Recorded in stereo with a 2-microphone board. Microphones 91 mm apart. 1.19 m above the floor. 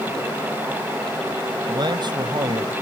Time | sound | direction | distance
1.7 | a man speaking | 55° right (ahead or behind) | ?